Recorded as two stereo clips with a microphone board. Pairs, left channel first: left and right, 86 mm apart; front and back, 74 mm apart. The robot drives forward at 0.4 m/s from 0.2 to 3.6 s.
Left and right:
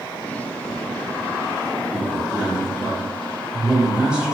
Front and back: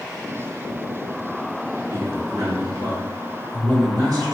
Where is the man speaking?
165° right, 1.3 m; by 4.3 s 170° right, 1.8 m.